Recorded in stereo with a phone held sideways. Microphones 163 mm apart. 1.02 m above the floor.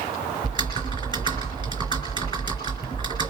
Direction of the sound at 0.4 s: 30° left (ahead or behind).